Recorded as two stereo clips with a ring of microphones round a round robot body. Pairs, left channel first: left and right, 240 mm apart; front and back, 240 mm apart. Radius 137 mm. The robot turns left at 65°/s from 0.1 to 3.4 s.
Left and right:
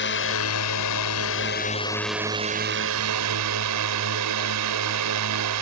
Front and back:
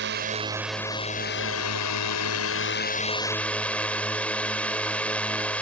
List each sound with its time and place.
0.0 s a drone: 130° left; by 5.6 s 85° right